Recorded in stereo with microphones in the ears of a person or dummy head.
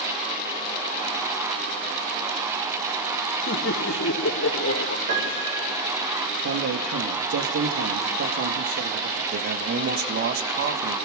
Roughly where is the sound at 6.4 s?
Right.